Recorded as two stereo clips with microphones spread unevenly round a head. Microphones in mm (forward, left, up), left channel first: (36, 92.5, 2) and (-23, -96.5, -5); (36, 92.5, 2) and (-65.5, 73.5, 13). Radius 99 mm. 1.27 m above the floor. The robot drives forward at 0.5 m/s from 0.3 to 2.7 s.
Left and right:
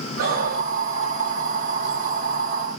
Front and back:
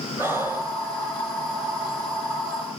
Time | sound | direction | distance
0.2 | breathing | 60° right | 5.5 m